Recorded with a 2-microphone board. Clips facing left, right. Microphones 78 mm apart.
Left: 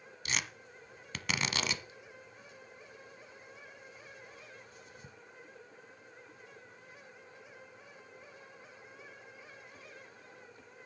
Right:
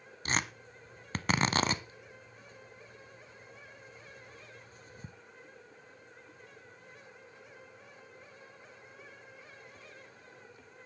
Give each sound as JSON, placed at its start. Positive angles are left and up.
{"t": 0.2, "sound": "tearing paper", "side_deg": -40, "distance_m": 0.8}